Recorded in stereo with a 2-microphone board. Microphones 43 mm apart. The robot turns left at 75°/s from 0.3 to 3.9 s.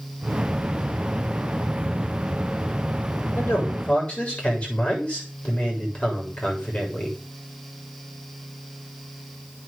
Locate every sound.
3.4 s a man speaking: 70° left, 7 m; by 7.2 s 30° left, 7 m